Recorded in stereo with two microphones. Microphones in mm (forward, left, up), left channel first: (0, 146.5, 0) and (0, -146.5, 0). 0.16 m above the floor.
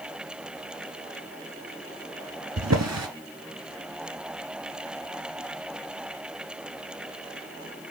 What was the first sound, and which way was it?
A drawer, 65° right (ahead or behind).